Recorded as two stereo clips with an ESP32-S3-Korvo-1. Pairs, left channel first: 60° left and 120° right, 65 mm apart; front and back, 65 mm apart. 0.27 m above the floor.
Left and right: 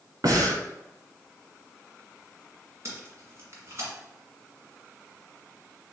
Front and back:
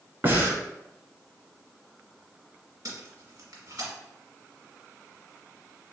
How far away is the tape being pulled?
About 1.6 m.